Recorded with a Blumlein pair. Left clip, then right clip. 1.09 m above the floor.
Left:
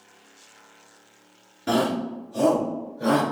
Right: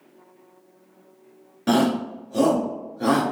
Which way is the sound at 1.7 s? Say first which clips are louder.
Right 2 dB; 15° right.